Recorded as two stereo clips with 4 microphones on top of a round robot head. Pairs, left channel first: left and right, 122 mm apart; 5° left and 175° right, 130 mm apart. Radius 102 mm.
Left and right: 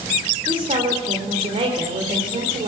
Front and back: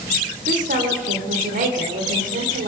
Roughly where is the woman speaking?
Behind right.